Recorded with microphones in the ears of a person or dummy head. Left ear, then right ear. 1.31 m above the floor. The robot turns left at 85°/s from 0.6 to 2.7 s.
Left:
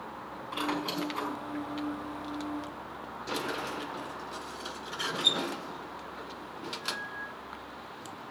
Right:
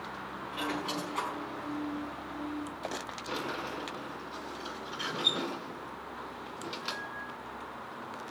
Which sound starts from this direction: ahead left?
A squeak, at 0.5 s.